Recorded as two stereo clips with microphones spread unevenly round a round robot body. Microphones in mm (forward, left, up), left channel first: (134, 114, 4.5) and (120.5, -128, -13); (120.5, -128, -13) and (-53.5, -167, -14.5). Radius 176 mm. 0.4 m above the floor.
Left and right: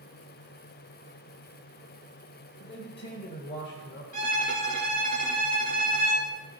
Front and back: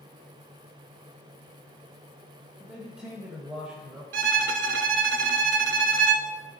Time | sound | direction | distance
2.6 | a man speaking | 110° left | 1.3 m
4.1 | a violin | 160° right | 0.8 m